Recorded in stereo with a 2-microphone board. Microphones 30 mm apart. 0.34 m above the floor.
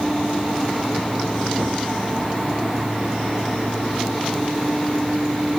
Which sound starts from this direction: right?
A gunshot, at 1.6 s.